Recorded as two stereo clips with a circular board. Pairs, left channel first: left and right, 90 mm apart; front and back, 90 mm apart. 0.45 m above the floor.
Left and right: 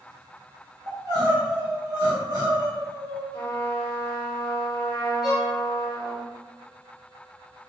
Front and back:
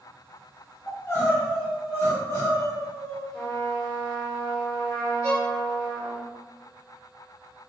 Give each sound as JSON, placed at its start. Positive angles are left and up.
{"t": 0.9, "sound": "crying", "azimuth_deg": -55, "distance_m": 1.0}
{"t": 3.3, "sound": "a trumpet", "azimuth_deg": 45, "distance_m": 1.5}
{"t": 5.2, "sound": "a violin", "azimuth_deg": 5, "distance_m": 1.5}